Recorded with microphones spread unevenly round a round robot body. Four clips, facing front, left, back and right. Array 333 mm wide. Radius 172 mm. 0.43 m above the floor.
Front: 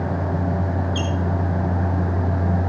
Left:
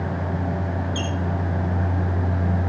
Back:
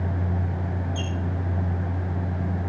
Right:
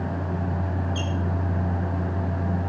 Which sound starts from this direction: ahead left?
A squeak, at 0.9 s.